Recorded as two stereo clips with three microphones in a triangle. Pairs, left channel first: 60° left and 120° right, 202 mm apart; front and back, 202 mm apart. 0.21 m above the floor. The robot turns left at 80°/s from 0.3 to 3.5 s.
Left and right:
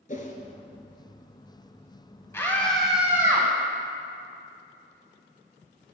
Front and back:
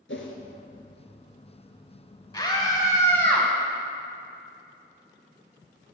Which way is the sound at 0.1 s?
10° left.